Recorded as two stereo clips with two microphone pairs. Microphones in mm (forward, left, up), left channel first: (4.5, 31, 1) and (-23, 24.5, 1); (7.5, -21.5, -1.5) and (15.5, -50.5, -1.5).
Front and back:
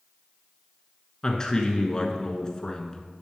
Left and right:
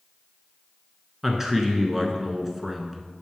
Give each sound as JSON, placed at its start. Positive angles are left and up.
{"t": 1.2, "sound": "a man speaking", "azimuth_deg": -15, "distance_m": 1.2}